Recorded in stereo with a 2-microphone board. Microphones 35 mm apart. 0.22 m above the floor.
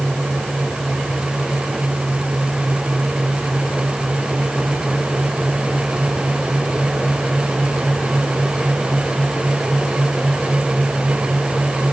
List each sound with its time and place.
Only background noise.